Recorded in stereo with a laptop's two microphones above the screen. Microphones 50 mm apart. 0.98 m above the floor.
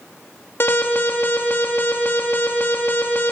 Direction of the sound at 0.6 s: 55° left (ahead or behind).